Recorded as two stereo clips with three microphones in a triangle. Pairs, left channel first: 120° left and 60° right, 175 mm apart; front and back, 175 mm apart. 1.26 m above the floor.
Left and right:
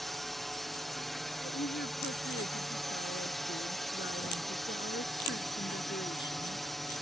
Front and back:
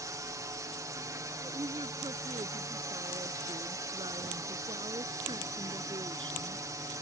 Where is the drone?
150° right.